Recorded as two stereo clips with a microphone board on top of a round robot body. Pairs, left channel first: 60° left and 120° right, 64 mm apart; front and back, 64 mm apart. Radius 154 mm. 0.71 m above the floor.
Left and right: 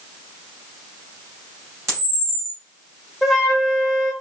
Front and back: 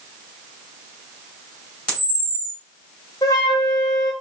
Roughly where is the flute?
Ahead right.